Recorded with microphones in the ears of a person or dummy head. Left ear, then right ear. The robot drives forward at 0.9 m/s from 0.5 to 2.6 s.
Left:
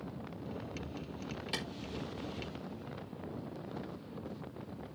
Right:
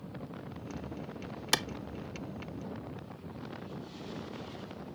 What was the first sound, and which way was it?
A clap, 60° right (ahead or behind).